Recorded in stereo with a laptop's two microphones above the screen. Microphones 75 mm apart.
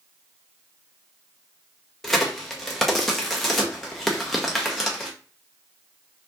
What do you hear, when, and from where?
2.0 s a crack: centre (ahead or behind), 0.5 m